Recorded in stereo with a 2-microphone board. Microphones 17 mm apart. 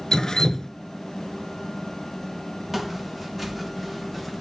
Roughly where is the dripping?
Left.